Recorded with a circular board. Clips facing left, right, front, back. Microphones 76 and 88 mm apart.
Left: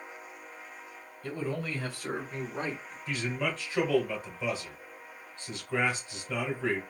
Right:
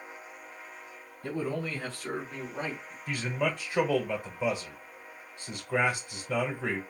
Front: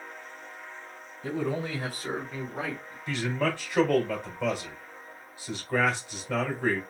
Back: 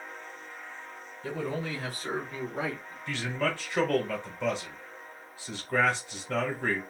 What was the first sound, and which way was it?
A man speaking, 55° right.